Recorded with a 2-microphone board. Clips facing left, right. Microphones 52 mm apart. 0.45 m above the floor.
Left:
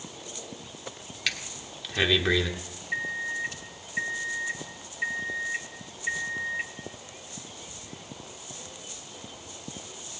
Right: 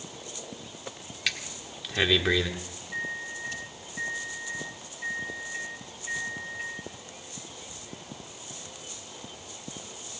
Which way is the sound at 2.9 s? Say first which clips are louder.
Left 4 dB; 70° left (ahead or behind).